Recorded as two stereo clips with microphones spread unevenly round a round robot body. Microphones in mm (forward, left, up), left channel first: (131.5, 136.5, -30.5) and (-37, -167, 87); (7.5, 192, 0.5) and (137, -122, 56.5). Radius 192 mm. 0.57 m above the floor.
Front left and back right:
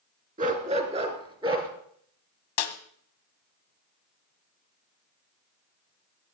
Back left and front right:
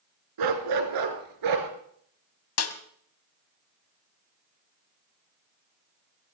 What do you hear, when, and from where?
0.4 s a dog barking: 55° right, 2 m; by 1.7 s 45° right, 3 m
2.6 s a snare drum: 65° left, 1.4 m